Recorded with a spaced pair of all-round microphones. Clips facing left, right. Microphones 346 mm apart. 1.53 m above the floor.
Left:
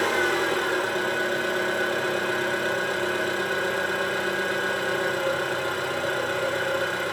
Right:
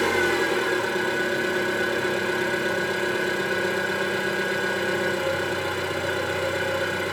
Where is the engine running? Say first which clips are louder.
Right 2 dB; 35° right (ahead or behind), 0.8 m.